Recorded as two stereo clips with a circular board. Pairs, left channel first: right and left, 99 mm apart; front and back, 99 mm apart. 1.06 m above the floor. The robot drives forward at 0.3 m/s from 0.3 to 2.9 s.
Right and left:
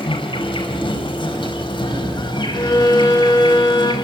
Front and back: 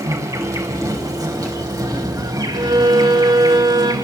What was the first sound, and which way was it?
An insect, 125° right.